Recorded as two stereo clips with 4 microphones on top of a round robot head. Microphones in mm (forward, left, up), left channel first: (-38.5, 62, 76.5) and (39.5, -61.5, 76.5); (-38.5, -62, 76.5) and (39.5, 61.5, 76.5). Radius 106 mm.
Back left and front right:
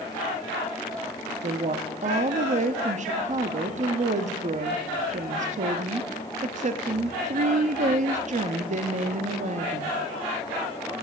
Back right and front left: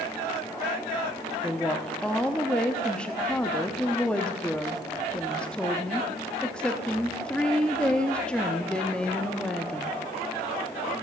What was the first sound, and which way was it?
A woman speaking, 40° right.